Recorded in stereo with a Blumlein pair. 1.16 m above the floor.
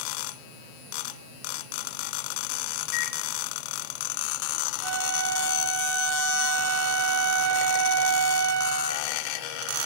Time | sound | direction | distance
2.9 | a microwave | 40° left | 4 m
4.8 | a flute | 45° right | 8 m